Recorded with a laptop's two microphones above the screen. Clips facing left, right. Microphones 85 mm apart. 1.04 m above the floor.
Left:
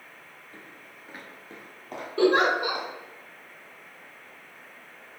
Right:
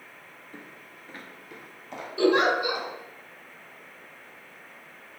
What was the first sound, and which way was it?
Footsteps, 20° right (ahead or behind).